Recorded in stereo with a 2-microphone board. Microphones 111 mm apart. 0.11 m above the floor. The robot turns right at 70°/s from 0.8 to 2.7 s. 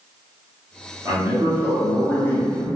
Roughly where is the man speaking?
Ahead right.